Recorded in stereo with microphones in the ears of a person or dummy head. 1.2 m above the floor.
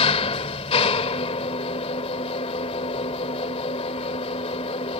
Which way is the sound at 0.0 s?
30° left (ahead or behind).